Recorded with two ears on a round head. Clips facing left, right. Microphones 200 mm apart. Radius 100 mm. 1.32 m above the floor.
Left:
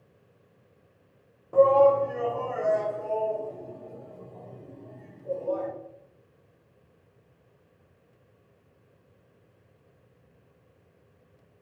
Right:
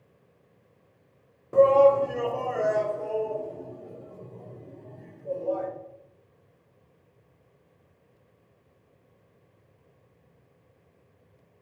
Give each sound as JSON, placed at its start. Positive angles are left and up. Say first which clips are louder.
{"t": 1.5, "sound": "a shout", "louder": "right 1 dB", "side_deg": -25, "distance_m": 0.5}